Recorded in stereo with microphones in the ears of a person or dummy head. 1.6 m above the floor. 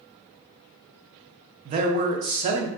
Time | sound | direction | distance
1.6 | a man speaking | 40° right (ahead or behind) | 0.5 m